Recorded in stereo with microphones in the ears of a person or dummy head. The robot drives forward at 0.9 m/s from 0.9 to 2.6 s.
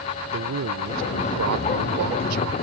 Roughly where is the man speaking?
Right.